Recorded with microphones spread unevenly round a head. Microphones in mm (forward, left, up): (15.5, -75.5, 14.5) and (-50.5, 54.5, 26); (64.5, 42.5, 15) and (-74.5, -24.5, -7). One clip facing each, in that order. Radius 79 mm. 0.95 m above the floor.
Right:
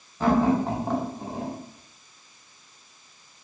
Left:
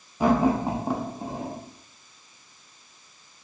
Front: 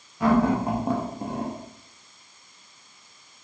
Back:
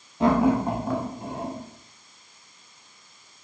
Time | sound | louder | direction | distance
0.2 | laughter | even, back 1 dB | 165° right | 0.6 m